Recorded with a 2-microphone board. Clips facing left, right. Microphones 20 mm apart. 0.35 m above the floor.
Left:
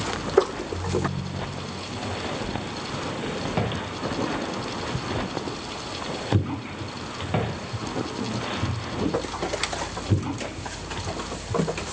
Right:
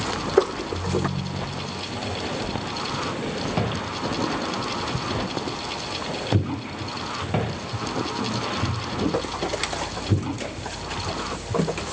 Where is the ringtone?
80° right, 8 m.